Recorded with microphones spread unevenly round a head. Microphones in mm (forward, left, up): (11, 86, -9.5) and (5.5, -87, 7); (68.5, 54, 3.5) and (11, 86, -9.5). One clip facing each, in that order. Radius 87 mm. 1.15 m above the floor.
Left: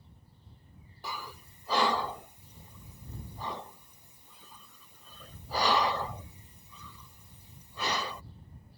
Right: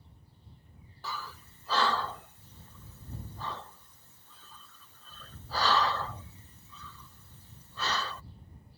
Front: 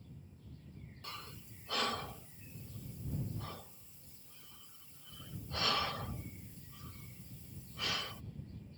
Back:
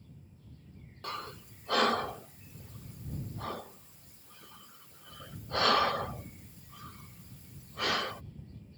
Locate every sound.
1.0 s breathing: 160° left